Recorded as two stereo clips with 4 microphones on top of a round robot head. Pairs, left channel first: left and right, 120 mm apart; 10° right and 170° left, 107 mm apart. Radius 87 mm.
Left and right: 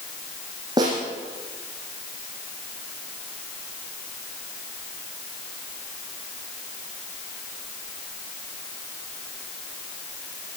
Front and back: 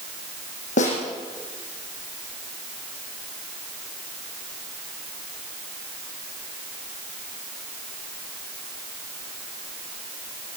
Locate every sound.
0.8 s a snare drum: 25° right, 7.5 m